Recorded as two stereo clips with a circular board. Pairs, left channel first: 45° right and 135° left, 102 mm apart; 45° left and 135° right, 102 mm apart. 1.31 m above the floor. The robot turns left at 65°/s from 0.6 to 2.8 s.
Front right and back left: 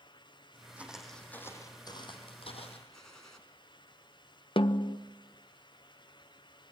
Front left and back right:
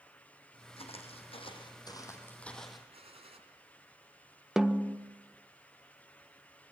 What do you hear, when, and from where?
0.8 s footsteps: 60° left, 4.5 m; by 2.8 s 50° right, 3.5 m
2.9 s a gunshot: 130° right, 3.5 m
4.6 s a snare drum: 50° right, 0.8 m